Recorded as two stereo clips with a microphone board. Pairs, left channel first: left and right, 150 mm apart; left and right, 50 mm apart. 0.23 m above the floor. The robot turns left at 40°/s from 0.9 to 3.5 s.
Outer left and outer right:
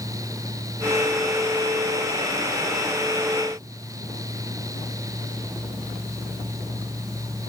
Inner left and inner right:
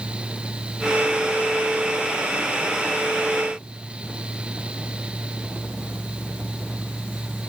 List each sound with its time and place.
Only background noise.